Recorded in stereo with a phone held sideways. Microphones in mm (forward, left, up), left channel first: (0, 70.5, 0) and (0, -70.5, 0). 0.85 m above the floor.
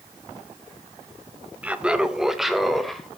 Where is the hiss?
No hiss in this recording.